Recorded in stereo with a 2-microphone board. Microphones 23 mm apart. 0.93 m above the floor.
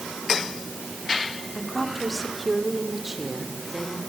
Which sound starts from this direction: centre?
A woman speaking, at 1.6 s.